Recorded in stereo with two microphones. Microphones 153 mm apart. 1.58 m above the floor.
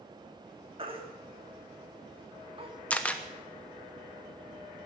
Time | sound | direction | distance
0.8 | a baby crying | 35° right (ahead or behind) | 2 m
2.9 | a camera shutter | 10° left (ahead or behind) | 1.0 m